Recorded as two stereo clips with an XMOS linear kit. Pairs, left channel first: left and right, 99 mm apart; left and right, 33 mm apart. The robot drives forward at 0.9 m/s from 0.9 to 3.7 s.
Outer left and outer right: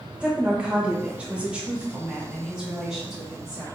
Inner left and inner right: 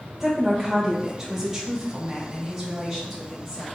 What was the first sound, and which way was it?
A woman speaking, 10° right (ahead or behind).